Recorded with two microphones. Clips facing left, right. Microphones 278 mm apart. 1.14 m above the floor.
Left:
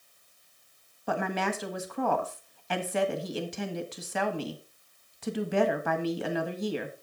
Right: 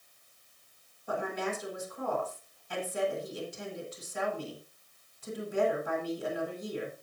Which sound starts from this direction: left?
A woman speaking, at 1.1 s.